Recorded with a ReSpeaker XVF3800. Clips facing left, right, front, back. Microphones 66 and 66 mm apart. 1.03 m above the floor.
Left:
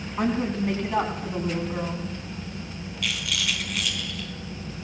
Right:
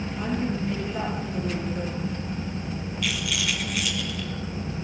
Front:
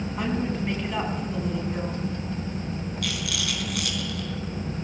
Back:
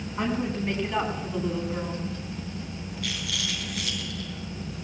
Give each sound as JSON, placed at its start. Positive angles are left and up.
{"t": 0.2, "sound": "a woman speaking", "azimuth_deg": 90, "distance_m": 8.5}
{"t": 3.0, "sound": "a rattle", "azimuth_deg": 0, "distance_m": 5.0}